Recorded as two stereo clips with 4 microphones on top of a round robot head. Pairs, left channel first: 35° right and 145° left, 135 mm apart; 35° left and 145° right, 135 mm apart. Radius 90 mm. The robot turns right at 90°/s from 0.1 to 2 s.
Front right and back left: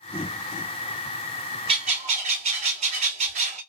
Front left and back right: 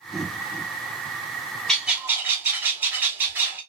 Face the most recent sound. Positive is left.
turn(degrees=145)